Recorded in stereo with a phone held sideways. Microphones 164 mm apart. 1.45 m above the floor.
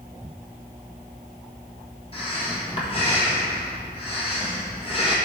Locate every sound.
2.1 s breathing: 35° left (ahead or behind), 1.5 m